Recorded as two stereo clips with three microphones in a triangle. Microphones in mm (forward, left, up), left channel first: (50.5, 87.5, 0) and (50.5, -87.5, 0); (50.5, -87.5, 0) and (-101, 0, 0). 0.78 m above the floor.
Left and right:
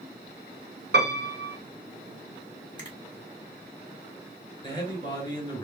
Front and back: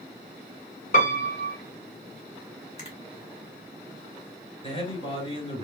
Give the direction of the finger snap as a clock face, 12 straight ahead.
11 o'clock.